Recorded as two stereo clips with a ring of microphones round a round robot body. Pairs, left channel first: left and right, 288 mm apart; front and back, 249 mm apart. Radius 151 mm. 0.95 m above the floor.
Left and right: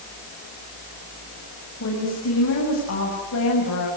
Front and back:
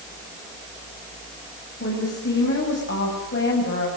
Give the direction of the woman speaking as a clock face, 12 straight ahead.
11 o'clock.